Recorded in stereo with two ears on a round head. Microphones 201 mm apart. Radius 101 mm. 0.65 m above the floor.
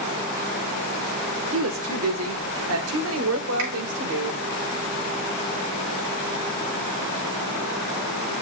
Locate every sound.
1.5 s a woman speaking: 60° right (ahead or behind), 1.6 m; by 4.4 s 65° right (ahead or behind), 2.5 m
3.6 s a finger snap: 80° right, 4.5 m